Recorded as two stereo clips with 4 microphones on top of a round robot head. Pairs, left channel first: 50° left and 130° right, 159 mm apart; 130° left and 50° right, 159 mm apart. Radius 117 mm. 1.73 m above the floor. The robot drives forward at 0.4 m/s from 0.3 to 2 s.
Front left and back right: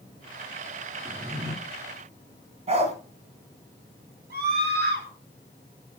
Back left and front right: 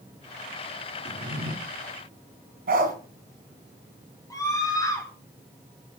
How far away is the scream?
About 6 m.